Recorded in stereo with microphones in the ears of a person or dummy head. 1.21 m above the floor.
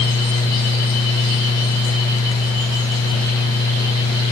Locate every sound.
Only background noise.